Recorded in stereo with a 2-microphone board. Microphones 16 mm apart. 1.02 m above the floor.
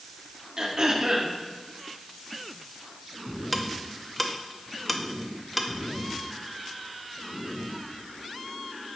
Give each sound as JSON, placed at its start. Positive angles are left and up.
{"t": 0.6, "sound": "throat clearing", "side_deg": -45, "distance_m": 1.2}
{"t": 3.5, "sound": "ticking", "side_deg": 0, "distance_m": 0.7}